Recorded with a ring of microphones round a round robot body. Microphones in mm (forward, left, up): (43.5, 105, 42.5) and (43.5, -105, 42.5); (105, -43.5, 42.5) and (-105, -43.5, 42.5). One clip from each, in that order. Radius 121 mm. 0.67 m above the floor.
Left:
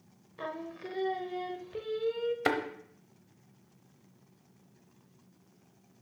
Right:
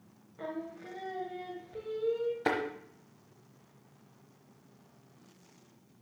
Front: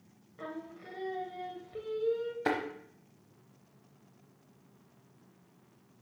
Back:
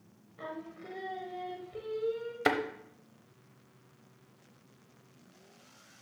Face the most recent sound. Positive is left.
turn(degrees=135)